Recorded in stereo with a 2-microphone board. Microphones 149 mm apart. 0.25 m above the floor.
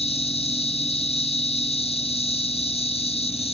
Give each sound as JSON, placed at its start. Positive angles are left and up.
{"t": 0.0, "sound": "an insect", "side_deg": 40}